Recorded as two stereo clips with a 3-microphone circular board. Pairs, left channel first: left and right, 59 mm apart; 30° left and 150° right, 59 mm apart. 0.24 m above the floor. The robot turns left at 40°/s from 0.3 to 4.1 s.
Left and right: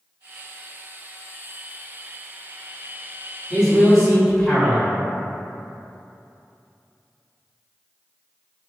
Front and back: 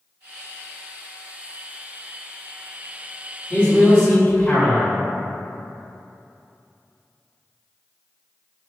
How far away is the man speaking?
About 1.1 m.